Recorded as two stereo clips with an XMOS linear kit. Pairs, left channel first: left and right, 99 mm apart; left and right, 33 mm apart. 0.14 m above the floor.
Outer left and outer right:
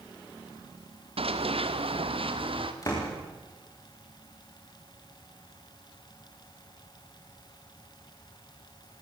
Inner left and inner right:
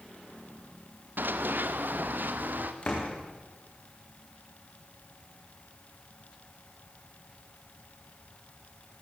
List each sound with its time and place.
1.2 s running footsteps: 80° right, 2 m; by 2.7 s 65° right (ahead or behind), 3 m
2.8 s a door slam: 35° left (ahead or behind), 8.5 m